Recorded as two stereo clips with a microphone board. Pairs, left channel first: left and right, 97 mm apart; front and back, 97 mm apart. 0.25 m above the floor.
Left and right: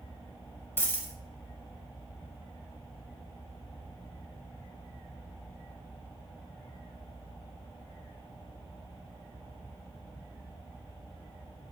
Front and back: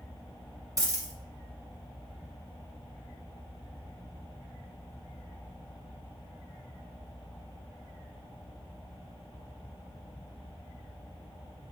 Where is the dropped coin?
150° left, 0.6 m.